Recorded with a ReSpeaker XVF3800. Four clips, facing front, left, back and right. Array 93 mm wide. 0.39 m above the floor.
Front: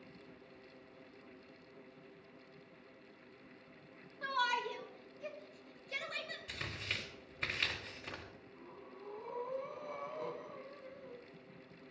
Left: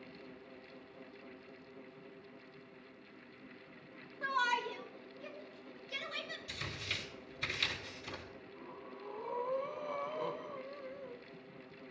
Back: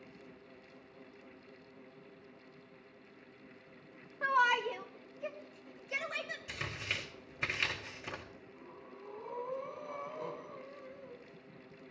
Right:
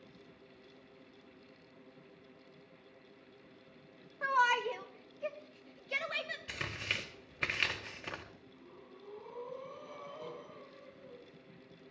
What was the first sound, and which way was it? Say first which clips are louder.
A shout: right 4 dB, back 6 dB; 145° right.